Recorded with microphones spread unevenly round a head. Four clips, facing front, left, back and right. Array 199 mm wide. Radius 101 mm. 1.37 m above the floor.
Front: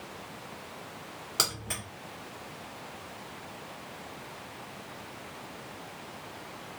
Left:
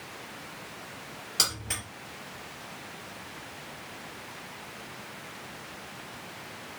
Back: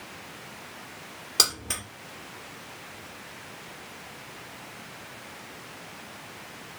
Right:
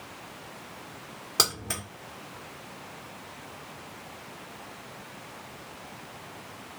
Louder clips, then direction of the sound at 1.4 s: Right 5 dB, back 3 dB; 110° right.